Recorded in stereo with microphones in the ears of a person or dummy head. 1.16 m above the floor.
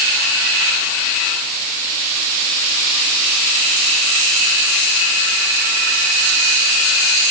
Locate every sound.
Only background noise.